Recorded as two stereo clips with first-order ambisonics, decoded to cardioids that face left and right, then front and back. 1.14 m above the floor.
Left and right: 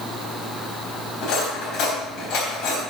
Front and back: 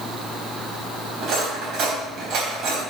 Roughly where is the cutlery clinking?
Behind left.